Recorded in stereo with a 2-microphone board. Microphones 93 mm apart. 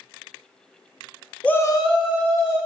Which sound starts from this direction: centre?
A shout, at 1.4 s.